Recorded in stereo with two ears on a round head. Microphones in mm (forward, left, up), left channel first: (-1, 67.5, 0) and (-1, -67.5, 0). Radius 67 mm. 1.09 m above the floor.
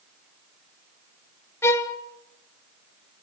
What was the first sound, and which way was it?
A violin, 15° left (ahead or behind).